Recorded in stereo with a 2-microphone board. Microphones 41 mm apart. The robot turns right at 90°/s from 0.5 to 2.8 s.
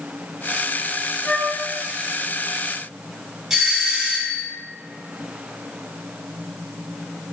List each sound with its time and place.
1.2 s a flute: 130° left, 1.3 m; by 1.6 s 160° left, 1.3 m
3.5 s a doorbell: 10° right (ahead or behind), 1.6 m